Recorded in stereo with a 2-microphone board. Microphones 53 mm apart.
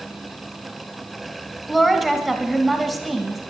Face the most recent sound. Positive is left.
turn(degrees=-5)  # may be behind; listen again after turning